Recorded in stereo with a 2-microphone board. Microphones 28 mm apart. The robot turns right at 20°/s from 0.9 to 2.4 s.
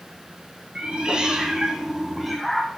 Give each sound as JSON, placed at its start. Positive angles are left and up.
{"t": 0.8, "sound": "a cat meowing", "side_deg": -30, "distance_m": 2.5}